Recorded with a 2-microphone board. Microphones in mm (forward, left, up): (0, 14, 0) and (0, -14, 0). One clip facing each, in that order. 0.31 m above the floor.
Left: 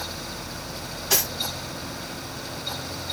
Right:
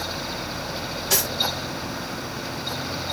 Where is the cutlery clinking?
10° left (ahead or behind), 1.4 m.